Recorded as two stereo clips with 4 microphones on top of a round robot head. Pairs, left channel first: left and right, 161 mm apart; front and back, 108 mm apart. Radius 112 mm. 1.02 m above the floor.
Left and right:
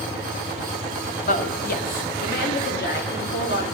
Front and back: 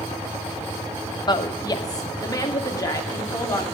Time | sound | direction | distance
1.3 | a woman speaking | 45° left | 1.3 m